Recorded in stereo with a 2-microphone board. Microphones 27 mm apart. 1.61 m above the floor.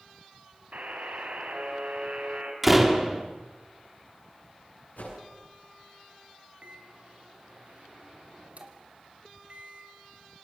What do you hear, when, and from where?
0.7 s a buzzer: 75° right (ahead or behind), 4.5 m
2.6 s a door slam: 5° right (ahead or behind), 2.5 m
5.0 s a whoosh: 85° left, 9 m
6.6 s a microwave: 55° right (ahead or behind), 3 m